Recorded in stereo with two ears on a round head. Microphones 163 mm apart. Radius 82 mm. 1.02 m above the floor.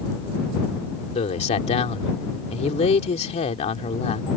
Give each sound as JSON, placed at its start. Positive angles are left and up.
{"t": 1.1, "sound": "a man speaking", "side_deg": 35}